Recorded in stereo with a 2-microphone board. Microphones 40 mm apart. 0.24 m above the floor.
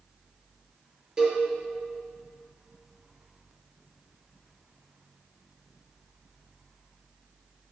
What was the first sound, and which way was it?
A cowbell, 20° right (ahead or behind).